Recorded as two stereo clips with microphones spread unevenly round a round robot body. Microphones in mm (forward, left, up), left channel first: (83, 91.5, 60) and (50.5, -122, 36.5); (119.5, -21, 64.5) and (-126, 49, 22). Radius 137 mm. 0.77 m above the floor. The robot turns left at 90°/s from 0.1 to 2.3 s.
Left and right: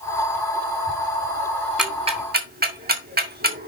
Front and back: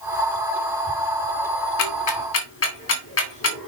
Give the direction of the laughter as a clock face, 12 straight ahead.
No laughter in this recording.